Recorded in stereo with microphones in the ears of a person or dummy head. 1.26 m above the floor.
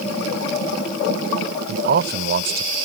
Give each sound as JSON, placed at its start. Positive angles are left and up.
{"t": 1.7, "sound": "a man speaking", "side_deg": -55}